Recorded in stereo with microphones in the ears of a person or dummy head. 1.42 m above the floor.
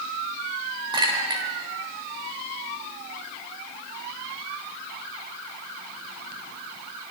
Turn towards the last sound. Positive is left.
turn(degrees=-25)  # may be behind; listen again after turning